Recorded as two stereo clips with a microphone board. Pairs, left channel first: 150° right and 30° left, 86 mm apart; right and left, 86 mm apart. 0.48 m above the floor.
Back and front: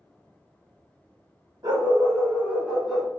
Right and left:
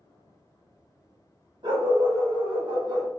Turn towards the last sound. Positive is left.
turn(degrees=120)